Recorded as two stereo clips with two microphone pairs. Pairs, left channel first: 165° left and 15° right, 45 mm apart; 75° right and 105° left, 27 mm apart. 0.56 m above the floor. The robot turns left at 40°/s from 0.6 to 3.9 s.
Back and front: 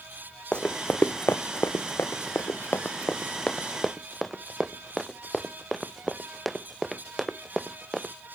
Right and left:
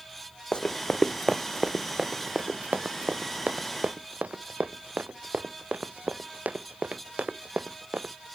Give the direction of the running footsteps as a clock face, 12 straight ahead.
4 o'clock.